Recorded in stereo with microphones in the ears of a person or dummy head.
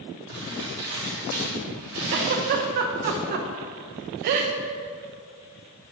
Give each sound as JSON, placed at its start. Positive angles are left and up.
{"t": 0.3, "sound": "crumpling", "side_deg": -60, "distance_m": 1.9}
{"t": 2.1, "sound": "a giggle", "side_deg": -40, "distance_m": 0.5}